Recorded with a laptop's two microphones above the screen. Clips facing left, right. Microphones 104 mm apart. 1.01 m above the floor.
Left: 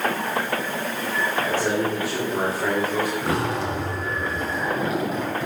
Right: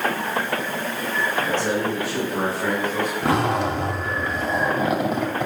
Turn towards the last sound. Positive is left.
turn(degrees=-65)  # may be behind; listen again after turning